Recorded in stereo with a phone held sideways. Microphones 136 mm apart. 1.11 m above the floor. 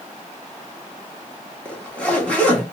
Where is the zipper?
10° left (ahead or behind), 1.3 m.